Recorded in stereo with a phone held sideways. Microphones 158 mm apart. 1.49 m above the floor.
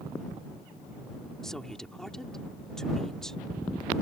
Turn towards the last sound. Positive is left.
turn(degrees=5)  # may be behind; listen again after turning